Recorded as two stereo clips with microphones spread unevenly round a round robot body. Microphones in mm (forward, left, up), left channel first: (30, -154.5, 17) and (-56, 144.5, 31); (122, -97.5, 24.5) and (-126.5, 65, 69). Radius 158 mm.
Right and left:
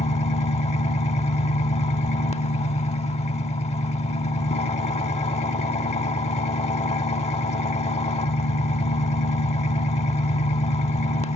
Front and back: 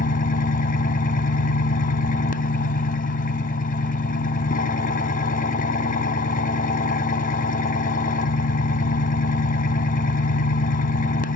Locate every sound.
0.0 s an engine running: 25° right, 1.1 m